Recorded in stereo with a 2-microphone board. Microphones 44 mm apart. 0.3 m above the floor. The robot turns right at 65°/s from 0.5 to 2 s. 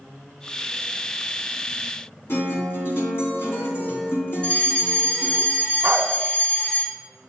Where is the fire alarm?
25° left (ahead or behind), 1.9 m.